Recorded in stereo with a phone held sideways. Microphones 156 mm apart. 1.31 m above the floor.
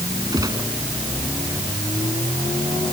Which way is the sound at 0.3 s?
25° right (ahead or behind).